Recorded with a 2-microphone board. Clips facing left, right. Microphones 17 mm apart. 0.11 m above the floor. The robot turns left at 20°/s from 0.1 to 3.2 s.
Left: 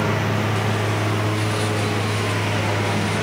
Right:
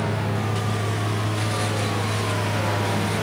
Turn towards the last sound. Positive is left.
turn(degrees=20)